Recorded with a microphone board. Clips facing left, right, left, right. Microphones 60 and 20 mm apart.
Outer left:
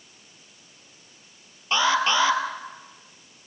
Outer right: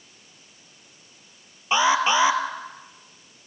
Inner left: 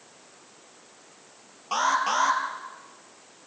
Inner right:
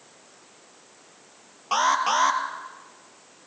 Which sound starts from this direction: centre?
An alarm, at 1.7 s.